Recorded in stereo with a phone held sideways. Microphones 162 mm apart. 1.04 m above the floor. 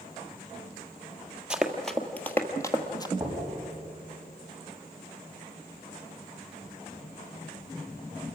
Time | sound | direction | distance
1.5 | running footsteps | 5° right (ahead or behind) | 1.5 m
3.2 | knocking | 10° right (ahead or behind) | 7 m